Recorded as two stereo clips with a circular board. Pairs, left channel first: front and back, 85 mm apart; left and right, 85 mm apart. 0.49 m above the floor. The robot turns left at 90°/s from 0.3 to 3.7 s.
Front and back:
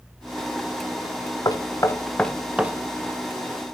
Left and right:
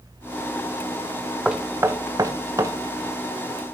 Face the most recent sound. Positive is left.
turn(degrees=150)